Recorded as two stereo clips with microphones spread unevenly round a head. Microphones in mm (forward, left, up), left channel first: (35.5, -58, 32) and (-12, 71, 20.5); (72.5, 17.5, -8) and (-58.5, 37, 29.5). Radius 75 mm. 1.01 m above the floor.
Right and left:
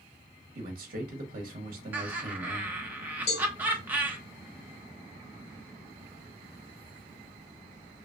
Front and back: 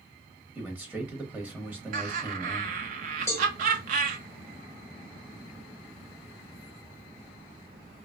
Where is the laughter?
Straight behind, 0.8 m.